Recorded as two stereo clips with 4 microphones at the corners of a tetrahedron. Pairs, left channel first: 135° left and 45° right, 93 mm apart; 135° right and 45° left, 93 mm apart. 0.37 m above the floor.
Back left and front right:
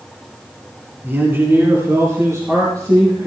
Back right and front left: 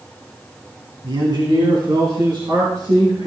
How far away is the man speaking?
About 2.5 m.